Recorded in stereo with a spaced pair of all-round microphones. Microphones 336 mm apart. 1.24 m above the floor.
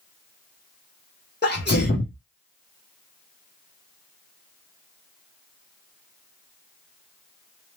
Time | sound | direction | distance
1.4 | a sneeze | 30° left (ahead or behind) | 0.6 m